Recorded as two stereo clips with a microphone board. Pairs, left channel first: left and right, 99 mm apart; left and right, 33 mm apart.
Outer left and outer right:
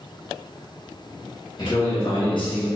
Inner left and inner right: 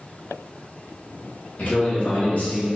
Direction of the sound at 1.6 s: 50° left (ahead or behind).